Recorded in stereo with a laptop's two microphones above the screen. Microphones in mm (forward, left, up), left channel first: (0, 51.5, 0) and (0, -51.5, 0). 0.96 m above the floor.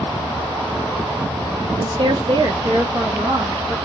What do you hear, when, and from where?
1.8 s a woman speaking: 35° right (ahead or behind), 0.6 m; by 3.8 s 40° right (ahead or behind), 2 m